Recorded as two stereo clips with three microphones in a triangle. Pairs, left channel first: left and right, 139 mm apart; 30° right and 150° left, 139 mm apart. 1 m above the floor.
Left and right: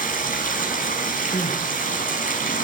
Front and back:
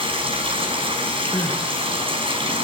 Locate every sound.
0.0 s running water: 100° left, 5 m
1.3 s crying: 45° left, 2 m